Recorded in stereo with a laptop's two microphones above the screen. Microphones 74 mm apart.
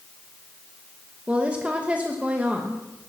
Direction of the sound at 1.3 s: 20° right (ahead or behind).